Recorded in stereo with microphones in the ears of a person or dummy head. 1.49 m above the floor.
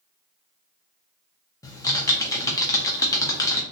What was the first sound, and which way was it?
Typing on a keyboard, 20° left (ahead or behind).